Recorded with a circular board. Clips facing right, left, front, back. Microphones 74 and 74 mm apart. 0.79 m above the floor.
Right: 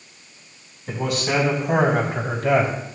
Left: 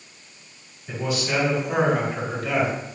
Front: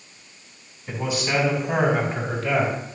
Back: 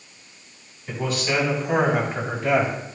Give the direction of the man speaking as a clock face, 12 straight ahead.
3 o'clock.